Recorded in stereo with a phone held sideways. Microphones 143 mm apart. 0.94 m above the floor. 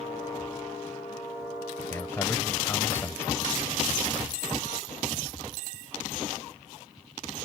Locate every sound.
1.9 s a man speaking: 15° left (ahead or behind)